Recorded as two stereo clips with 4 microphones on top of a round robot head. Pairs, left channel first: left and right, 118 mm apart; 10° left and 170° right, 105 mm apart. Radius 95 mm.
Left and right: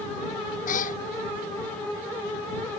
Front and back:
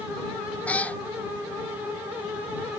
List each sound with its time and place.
0.7 s a cat meowing: 85° left